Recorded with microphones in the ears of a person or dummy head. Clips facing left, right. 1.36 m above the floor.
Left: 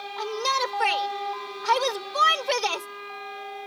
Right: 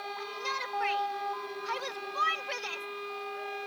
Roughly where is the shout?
Left.